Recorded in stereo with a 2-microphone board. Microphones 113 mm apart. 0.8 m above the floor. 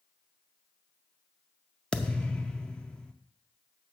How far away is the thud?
About 0.6 m.